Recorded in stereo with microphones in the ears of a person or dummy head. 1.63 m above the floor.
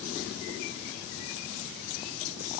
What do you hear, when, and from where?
Only background noise.